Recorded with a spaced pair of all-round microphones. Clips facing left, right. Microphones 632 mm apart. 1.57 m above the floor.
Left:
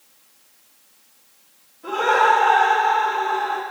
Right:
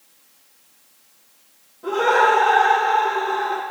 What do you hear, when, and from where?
1.8 s laughter: 80° right, 2.5 m